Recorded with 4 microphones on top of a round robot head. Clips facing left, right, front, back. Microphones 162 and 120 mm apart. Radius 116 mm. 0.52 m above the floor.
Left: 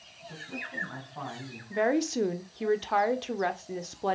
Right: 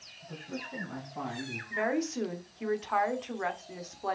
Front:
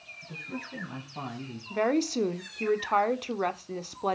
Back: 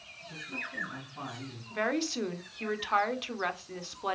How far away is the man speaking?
About 5 m.